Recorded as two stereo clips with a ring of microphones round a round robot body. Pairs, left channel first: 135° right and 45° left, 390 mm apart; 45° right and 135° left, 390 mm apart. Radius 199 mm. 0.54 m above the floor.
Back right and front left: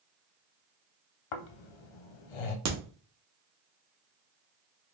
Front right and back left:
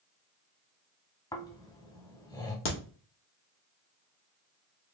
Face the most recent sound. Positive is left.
turn(degrees=5)